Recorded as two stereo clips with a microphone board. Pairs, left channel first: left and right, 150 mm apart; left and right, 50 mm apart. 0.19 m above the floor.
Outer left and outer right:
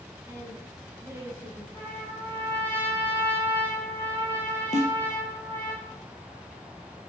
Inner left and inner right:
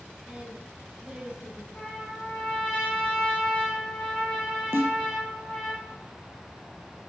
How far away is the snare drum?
About 2.5 m.